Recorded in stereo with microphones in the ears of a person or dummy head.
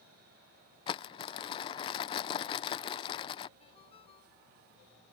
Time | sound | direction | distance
0.9 | crumpling | 25° left (ahead or behind) | ?
3.6 | a ringtone | 35° left (ahead or behind) | ?